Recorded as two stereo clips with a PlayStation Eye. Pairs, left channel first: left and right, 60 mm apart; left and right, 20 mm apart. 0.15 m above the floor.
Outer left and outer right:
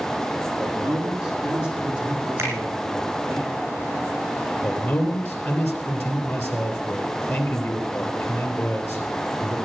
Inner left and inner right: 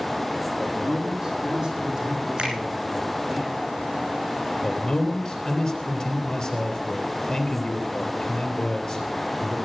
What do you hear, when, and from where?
0.6 s a man speaking: 15° right (ahead or behind), 7 m; by 3.4 s 25° right (ahead or behind), 8.5 m
2.4 s a finger snap: 50° right (ahead or behind), 6 m
4.6 s a man speaking: 40° left (ahead or behind), 3.5 m